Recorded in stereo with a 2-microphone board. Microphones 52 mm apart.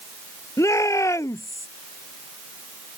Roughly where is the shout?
Left.